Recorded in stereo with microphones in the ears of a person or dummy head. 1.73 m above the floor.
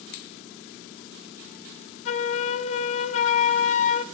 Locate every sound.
2.0 s a flute: 40° left (ahead or behind), 0.9 m